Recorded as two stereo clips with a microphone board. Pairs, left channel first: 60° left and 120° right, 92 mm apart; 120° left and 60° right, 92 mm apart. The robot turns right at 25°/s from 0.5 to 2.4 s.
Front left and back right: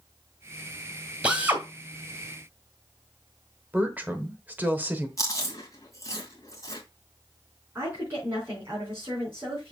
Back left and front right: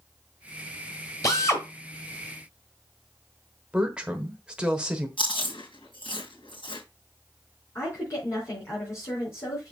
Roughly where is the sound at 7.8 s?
Behind.